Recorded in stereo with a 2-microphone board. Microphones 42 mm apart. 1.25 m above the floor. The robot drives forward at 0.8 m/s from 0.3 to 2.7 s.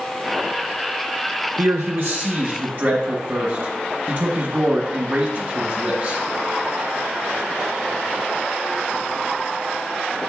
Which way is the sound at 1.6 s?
60° right (ahead or behind).